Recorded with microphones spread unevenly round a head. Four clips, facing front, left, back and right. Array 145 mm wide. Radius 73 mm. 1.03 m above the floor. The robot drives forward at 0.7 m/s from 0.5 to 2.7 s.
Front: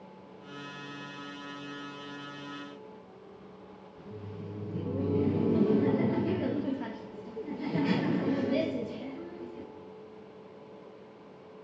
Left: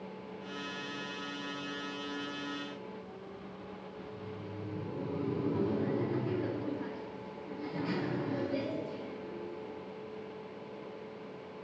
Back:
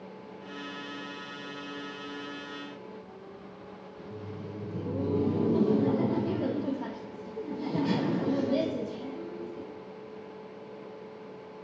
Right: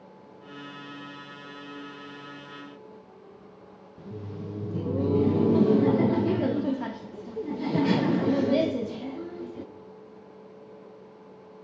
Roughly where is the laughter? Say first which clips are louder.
Right 8 dB, back 2 dB; right.